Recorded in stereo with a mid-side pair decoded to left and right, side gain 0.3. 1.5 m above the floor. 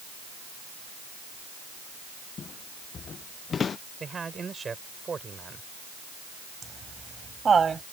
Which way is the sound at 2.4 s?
65° left.